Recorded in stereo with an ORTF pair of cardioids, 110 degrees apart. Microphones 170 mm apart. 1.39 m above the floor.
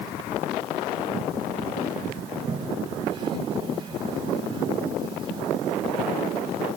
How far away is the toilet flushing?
About 1.7 m.